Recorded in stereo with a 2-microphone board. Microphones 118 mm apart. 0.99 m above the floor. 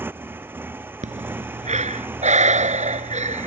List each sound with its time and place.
0.0 s a motorcycle: 20° right (ahead or behind)
1.0 s breathing: 85° right